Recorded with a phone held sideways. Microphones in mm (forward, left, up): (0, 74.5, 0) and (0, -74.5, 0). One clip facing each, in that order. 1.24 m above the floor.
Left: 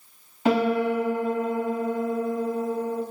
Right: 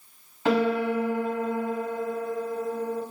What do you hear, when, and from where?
0.5 s a piano: 15° left (ahead or behind), 1.5 m